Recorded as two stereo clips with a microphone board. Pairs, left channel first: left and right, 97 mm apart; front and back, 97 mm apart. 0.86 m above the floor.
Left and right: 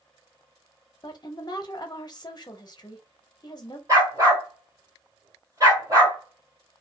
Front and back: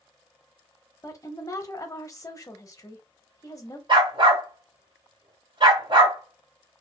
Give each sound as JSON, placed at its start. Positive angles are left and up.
{"t": 1.0, "sound": "a woman speaking", "azimuth_deg": 50, "distance_m": 0.9}
{"t": 3.9, "sound": "a dog barking", "azimuth_deg": -145, "distance_m": 1.8}